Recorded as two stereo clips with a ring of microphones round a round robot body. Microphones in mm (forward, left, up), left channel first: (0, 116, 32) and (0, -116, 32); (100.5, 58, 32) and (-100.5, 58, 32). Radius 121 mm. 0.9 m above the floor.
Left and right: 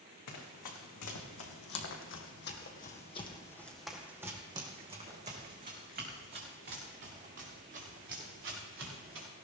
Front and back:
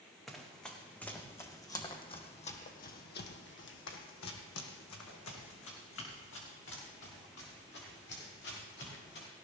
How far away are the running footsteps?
About 3.5 m.